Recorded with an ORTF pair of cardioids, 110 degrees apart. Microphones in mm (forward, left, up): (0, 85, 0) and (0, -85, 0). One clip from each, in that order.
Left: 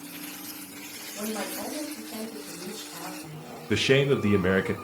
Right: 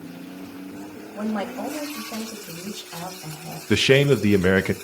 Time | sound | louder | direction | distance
1.1 | a woman speaking | right 5 dB | 40° right | 9 m
3.7 | a man speaking | right 5 dB | 25° right | 1.2 m